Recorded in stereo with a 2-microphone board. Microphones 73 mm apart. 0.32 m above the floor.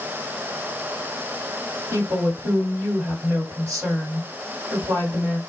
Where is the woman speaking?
40° right (ahead or behind), 2.0 m.